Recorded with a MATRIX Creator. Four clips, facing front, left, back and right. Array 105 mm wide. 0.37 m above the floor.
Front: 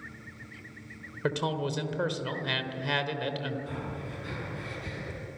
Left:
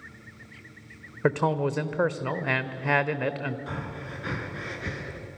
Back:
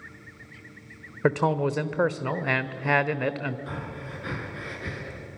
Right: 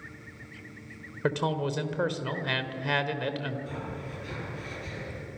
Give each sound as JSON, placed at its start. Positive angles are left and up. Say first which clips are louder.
{"t": 1.2, "sound": "a man speaking", "louder": "left 4 dB, back 7 dB", "azimuth_deg": 150, "distance_m": 1.1}
{"t": 3.7, "sound": "breathing", "louder": "left 1 dB, back 1 dB", "azimuth_deg": 120, "distance_m": 3.5}